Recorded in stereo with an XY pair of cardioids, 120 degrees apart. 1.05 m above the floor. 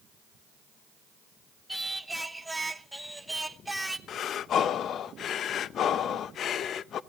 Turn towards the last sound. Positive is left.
turn(degrees=55)